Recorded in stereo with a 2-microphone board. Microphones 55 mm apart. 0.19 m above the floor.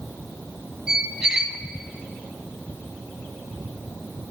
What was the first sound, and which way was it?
A squeak, 10° right (ahead or behind).